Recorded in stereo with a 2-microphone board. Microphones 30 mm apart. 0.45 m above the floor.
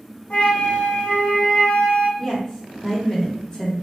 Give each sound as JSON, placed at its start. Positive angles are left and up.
{"t": 0.3, "sound": "a flute", "side_deg": 45, "distance_m": 1.2}
{"t": 2.2, "sound": "a woman speaking", "side_deg": 25, "distance_m": 1.0}